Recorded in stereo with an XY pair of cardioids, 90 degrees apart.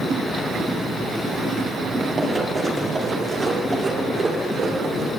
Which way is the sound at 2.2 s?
30° right.